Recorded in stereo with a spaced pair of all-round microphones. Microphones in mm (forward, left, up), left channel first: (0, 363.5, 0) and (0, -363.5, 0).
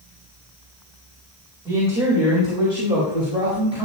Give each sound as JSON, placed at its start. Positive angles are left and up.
{"t": 1.6, "sound": "a man speaking", "side_deg": -5, "distance_m": 4.0}